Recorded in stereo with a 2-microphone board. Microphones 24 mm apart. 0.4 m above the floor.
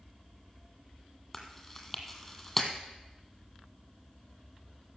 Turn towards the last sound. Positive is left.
turn(degrees=5)  # may be behind; listen again after turning